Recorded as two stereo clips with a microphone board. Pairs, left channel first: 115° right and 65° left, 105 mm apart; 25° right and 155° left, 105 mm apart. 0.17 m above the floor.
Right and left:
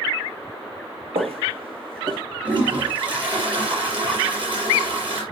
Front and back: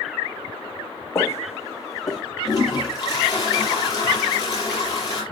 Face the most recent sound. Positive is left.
turn(degrees=30)